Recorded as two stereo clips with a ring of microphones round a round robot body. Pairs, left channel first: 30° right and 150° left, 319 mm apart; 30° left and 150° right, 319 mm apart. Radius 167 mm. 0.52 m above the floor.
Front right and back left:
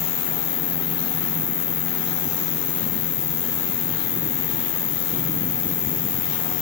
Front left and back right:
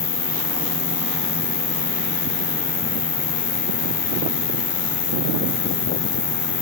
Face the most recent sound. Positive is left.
turn(degrees=10)